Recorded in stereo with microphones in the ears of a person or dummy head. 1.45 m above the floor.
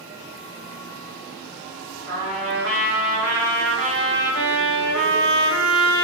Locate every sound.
2.1 s a trumpet: 75° right (ahead or behind), 4 m